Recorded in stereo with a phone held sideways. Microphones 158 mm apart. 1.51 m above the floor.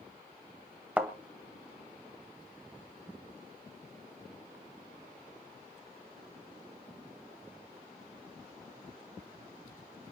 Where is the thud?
10° right (ahead or behind), 1.9 m.